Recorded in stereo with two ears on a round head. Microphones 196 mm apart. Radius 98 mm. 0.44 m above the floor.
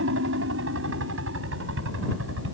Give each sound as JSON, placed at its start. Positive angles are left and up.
{"t": 0.0, "sound": "a helicopter", "side_deg": -60}